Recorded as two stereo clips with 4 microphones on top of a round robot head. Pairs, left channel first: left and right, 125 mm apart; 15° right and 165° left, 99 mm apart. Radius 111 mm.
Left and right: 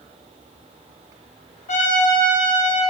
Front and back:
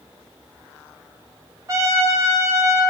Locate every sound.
1.7 s a trumpet: 110° left, 1.8 m